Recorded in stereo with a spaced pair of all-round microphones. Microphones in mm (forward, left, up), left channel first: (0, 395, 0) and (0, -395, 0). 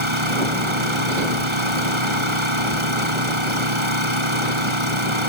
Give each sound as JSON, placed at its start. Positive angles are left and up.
{"t": 0.0, "sound": "an engine running", "side_deg": -35}